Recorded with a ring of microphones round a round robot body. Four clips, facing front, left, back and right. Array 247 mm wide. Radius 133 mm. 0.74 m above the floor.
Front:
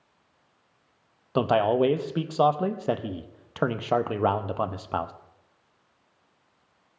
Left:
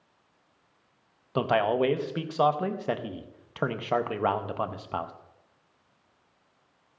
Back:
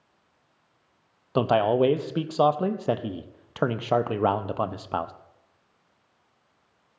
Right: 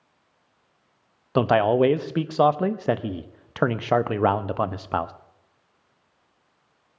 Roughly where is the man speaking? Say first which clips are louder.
Right 6 dB, back 1 dB; right.